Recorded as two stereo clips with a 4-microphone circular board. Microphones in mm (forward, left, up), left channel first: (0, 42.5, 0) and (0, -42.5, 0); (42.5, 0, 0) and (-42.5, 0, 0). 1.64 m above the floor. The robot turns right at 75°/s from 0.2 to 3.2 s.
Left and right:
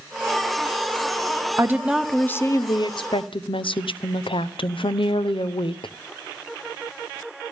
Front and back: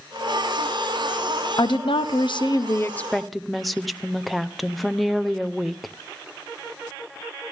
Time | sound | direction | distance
1.6 | a woman speaking | 35° right | 0.9 m